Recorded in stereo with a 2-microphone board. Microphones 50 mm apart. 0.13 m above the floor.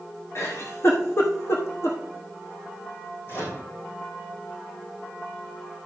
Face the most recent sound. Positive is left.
turn(degrees=45)  # may be behind; listen again after turning